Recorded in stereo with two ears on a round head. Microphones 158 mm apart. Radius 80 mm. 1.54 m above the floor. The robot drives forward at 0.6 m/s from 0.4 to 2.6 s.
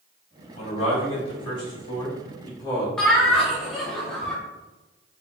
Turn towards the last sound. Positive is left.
turn(degrees=5)  # may be behind; listen again after turning